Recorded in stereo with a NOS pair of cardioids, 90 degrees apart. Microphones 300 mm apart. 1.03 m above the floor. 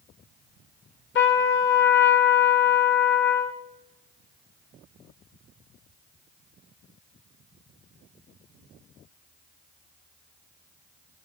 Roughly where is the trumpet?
Ahead left.